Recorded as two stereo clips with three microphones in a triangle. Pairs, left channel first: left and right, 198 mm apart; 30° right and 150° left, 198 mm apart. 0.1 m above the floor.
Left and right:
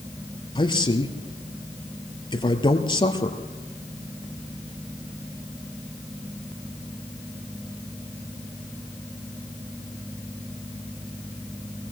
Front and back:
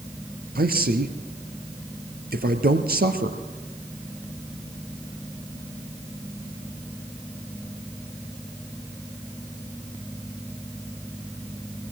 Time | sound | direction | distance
0.6 | a man speaking | 150° left | 2.0 m